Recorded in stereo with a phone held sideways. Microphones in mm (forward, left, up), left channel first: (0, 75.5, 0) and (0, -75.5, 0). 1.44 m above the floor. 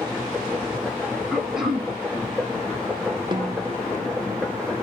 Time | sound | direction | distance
0.0 | a machine running | 5° left (ahead or behind) | 0.8 m
1.3 | throat clearing | centre (ahead or behind) | 0.7 m
3.3 | a snare drum | 30° right (ahead or behind) | 0.6 m